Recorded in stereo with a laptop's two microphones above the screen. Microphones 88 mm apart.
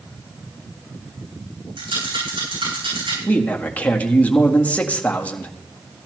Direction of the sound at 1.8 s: 85° right.